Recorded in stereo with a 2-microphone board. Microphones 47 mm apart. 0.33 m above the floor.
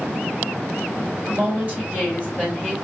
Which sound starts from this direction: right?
A woman speaking, at 1.3 s.